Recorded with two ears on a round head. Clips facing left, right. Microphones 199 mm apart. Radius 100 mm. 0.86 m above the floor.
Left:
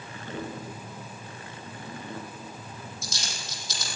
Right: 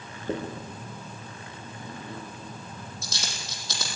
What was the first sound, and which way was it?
A dropped coin, 45° right (ahead or behind).